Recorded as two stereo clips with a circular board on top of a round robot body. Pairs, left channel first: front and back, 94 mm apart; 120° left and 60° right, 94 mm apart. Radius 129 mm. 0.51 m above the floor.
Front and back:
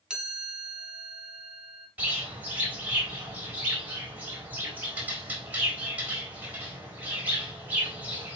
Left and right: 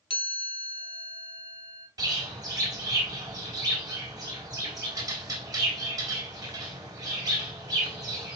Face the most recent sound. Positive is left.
turn(degrees=-110)